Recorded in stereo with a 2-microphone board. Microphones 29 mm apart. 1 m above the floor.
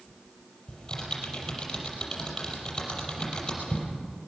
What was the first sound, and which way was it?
Typing on a keyboard, 20° left (ahead or behind).